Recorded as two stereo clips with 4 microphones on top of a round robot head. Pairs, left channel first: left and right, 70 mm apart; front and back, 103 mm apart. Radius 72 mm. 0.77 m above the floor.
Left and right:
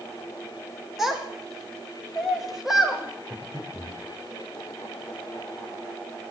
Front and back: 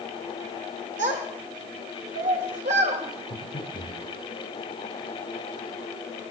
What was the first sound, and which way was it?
A child speaking, 175° right.